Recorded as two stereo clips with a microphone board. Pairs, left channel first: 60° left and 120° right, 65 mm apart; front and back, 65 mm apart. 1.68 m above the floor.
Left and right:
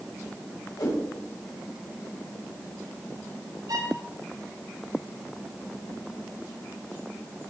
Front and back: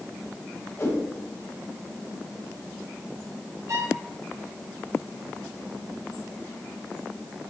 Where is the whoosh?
50° left, 9 m.